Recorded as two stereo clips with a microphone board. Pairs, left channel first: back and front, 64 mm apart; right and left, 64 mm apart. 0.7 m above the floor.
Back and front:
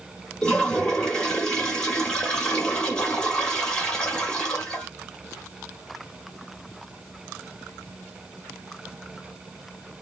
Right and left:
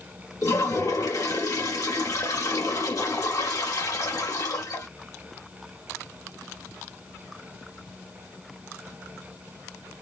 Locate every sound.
0.4 s a toilet flushing: 105° right, 1.7 m